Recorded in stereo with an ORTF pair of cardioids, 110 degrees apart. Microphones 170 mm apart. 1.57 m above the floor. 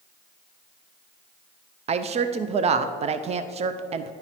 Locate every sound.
1.9 s a woman speaking: 35° right, 0.5 m